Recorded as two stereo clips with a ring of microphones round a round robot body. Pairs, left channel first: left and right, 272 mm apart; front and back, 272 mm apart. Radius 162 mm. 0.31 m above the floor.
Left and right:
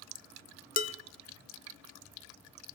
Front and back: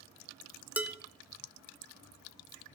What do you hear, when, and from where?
0.8 s dishes clattering: 100° left, 0.6 m